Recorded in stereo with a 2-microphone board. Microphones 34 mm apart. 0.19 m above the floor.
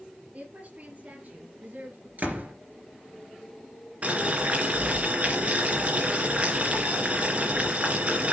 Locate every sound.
0.3 s a woman speaking: 45° right (ahead or behind), 4 m; by 2.1 s 60° right (ahead or behind), 4 m
2.2 s a door slam: 55° right (ahead or behind), 3 m
4.0 s boiling: 45° right (ahead or behind), 3 m